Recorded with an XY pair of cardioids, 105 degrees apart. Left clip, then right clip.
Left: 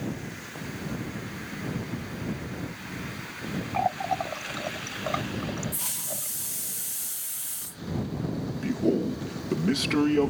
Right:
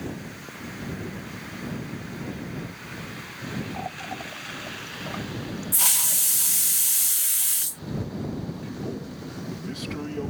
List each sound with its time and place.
3.7 s a running tap: 55° left
5.7 s a hiss: 65° right
8.6 s a man speaking: 65° left